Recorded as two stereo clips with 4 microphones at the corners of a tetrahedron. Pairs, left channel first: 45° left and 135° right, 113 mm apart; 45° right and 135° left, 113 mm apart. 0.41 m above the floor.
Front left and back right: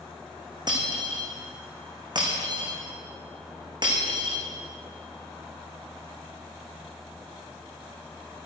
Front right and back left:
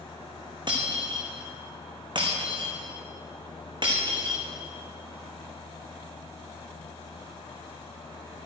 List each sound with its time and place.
0.7 s breaking glass: straight behind, 3 m